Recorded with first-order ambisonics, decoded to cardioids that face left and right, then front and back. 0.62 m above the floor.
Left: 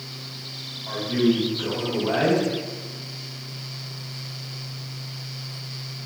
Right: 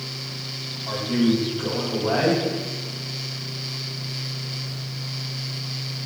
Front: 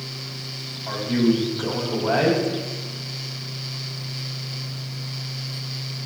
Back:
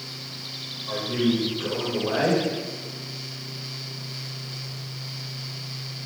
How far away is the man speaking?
About 4.5 m.